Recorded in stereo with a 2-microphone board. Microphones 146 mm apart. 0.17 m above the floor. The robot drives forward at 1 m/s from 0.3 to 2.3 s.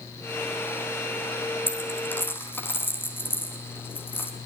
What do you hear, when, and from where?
1.7 s a dropped coin: 15° left (ahead or behind), 4.5 m